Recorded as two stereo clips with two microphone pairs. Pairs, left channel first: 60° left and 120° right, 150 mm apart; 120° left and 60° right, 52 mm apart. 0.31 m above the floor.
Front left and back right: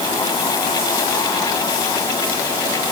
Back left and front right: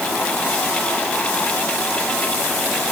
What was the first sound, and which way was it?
Only background noise.